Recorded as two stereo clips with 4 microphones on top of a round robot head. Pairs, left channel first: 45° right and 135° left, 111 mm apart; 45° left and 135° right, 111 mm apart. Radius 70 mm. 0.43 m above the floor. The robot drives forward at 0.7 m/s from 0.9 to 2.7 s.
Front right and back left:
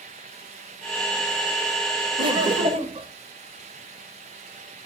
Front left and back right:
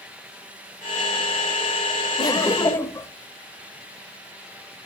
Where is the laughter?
90° left, 1.4 m; by 3.1 s 110° left, 1.4 m.